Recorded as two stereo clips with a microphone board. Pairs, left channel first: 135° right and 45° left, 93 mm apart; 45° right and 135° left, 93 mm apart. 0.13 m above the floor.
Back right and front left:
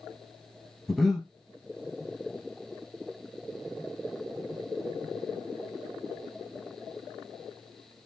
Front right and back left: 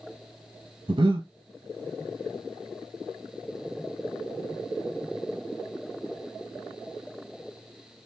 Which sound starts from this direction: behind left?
Breathing, at 0.9 s.